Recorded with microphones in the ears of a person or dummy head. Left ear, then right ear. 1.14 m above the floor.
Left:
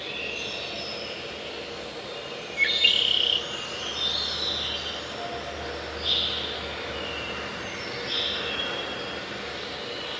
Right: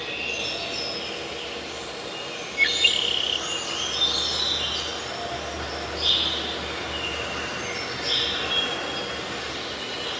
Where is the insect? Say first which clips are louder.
Right 3 dB; 75° right (ahead or behind), 4.5 m.